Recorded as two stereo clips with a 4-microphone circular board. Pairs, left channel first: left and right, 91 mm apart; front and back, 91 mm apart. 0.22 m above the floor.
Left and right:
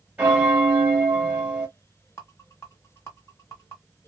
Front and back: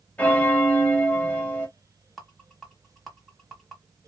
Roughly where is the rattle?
Left.